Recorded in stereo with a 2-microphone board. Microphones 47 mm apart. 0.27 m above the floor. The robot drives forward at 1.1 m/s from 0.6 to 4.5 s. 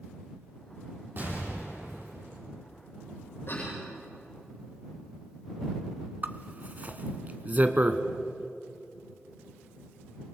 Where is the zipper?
35° right (ahead or behind), 1.1 m.